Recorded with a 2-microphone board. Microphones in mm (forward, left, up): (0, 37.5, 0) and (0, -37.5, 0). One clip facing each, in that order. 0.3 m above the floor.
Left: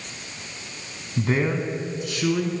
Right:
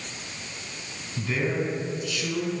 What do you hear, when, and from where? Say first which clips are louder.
1.2 s a man speaking: left 4 dB; 40° left (ahead or behind), 2.0 m; by 2.5 s 55° left (ahead or behind), 3 m